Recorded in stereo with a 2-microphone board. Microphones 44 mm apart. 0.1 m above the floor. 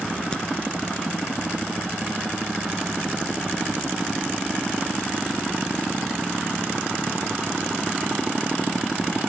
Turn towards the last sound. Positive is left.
turn(degrees=20)  # may be behind; listen again after turning